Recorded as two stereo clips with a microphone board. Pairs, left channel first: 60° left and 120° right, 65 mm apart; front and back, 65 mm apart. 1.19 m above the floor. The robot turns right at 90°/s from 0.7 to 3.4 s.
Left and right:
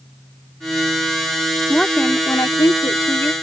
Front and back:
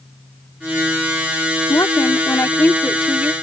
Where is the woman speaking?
30° right; by 3.3 s 120° left.